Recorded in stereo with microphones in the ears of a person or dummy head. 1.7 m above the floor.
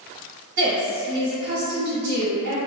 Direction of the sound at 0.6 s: 65° right (ahead or behind).